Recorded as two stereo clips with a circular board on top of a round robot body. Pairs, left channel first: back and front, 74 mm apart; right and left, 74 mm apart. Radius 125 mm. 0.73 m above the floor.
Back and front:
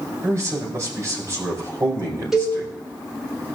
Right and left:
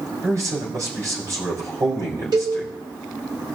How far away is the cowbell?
About 2.5 m.